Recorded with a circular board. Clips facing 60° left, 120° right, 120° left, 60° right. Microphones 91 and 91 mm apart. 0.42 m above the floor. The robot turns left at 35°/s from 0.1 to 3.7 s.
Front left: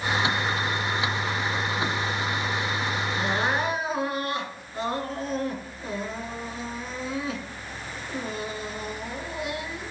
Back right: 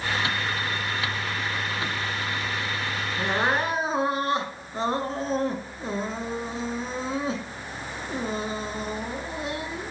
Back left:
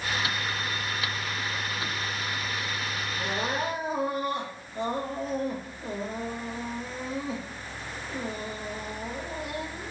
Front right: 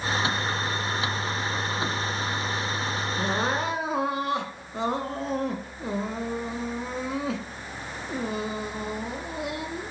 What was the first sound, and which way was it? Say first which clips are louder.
Crying: back right 2 dB, front right 3 dB; 45° right.